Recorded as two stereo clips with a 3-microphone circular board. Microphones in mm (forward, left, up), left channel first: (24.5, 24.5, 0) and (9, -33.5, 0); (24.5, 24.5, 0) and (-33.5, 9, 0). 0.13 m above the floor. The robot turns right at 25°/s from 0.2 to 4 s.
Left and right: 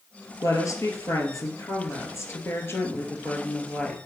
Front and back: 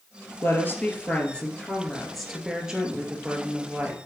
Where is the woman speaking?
60° left, 2.5 m; by 4.0 s 150° left, 2.5 m.